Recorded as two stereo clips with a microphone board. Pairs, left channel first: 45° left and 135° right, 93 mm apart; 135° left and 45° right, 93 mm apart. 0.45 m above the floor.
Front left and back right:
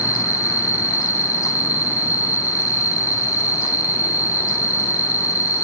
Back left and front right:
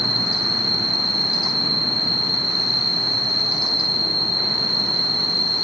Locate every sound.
0.0 s an insect: 155° left, 7 m